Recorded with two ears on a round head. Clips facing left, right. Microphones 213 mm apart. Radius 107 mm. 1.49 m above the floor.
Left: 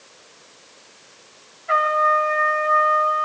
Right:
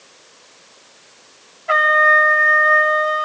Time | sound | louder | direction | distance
1.7 | a trumpet | right 3 dB | 65° right (ahead or behind) | 4 m